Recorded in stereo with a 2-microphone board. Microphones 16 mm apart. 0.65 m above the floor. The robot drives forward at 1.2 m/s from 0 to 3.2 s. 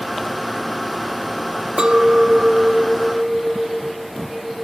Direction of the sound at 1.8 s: 65° right (ahead or behind).